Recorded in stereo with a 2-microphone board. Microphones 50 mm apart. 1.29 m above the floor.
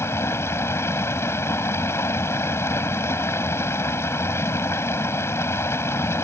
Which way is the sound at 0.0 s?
65° left (ahead or behind).